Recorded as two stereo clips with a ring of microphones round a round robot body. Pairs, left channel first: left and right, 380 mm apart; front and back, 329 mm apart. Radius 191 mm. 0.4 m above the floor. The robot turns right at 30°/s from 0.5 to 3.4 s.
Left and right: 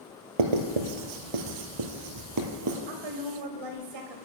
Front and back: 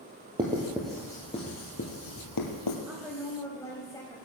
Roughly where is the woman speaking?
Right.